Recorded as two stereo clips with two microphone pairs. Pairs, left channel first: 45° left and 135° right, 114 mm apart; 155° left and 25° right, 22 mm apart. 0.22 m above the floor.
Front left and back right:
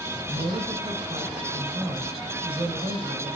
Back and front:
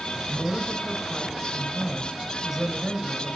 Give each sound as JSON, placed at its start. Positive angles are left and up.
{"t": 0.3, "sound": "a woman speaking", "azimuth_deg": -115, "distance_m": 2.5}